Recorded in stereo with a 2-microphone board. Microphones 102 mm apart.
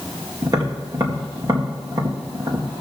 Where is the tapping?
40° right (ahead or behind), 2 m.